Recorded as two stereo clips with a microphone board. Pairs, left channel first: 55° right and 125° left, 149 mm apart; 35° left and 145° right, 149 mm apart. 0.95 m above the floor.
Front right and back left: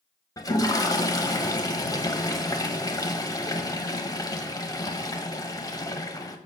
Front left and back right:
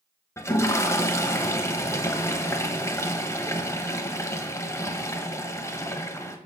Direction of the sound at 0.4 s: 20° right.